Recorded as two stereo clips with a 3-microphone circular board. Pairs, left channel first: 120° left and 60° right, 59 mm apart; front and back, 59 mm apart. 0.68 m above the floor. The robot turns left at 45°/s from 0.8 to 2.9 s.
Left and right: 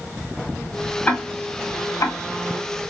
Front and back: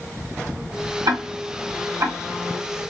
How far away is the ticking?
About 1.6 m.